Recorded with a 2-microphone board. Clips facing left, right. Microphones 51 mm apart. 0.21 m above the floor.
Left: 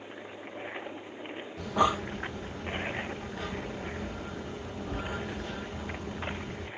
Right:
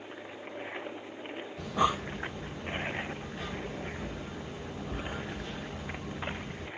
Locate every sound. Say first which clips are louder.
1.6 s breathing: left 2 dB; 80° left, 2 m